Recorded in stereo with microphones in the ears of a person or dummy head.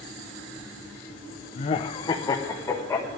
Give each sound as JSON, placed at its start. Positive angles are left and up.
{"t": 1.6, "sound": "laughter", "side_deg": 40, "distance_m": 0.7}